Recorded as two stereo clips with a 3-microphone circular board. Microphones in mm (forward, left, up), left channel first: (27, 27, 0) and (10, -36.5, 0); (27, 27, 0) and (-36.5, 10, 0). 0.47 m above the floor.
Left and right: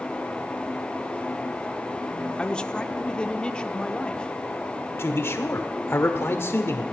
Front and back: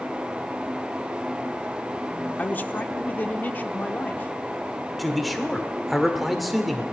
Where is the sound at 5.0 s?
105° left, 1.6 m.